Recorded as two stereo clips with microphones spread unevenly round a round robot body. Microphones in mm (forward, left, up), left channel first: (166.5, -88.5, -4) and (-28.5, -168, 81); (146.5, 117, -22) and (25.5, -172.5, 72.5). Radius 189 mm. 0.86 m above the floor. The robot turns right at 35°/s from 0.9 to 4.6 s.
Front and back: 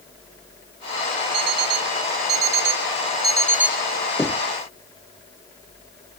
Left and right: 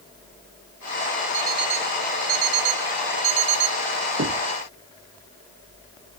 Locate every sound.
1.3 s an alarm clock: 175° left; by 3.8 s 100° right
4.2 s knocking: 60° right; by 4.5 s 50° right